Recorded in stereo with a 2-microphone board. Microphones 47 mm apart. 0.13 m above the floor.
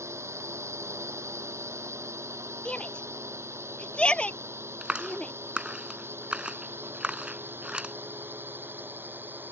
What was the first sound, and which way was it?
A drone, 75° right (ahead or behind).